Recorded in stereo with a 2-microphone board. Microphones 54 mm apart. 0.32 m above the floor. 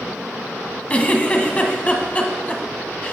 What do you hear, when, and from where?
0.9 s a giggle: 25° left (ahead or behind), 0.9 m